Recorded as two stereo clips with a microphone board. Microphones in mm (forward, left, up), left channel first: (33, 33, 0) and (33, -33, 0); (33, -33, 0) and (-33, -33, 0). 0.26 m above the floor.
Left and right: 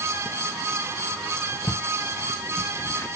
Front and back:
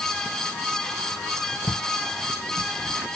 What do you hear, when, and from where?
1.7 s footsteps: 80° left, 1.7 m; by 3.2 s 85° left, 0.9 m